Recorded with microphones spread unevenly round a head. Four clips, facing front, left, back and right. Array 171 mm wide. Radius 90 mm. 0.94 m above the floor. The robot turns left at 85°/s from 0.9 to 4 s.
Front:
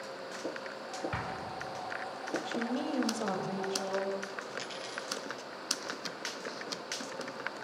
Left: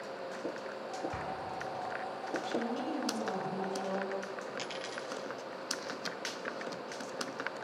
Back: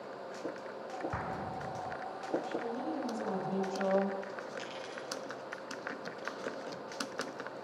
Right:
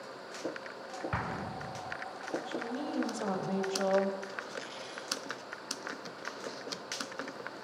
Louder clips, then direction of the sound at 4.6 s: Left 3 dB, front 1 dB; 75° left.